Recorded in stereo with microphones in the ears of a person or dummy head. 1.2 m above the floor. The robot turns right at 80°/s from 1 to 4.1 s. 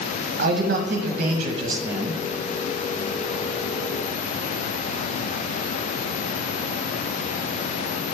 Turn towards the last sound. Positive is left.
turn(degrees=155)